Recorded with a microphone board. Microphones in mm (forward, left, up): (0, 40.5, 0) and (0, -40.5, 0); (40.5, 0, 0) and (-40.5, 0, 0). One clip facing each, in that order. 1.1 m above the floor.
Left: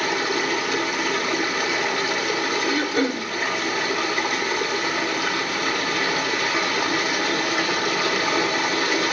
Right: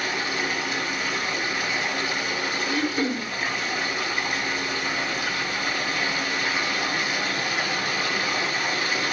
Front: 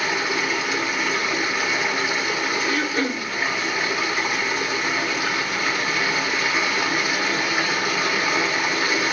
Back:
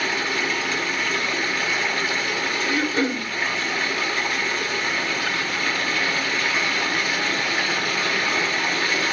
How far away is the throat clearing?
About 1.2 m.